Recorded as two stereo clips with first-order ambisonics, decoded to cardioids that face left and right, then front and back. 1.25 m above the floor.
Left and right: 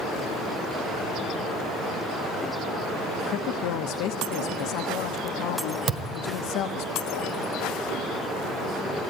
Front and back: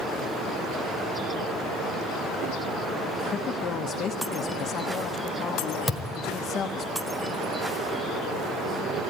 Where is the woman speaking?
60° left, 0.9 m.